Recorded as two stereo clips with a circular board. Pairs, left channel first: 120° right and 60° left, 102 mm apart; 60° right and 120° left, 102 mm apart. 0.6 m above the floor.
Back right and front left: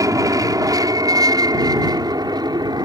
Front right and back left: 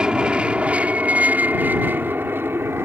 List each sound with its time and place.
0.0 s an aircraft: 45° left; by 2.9 s 65° left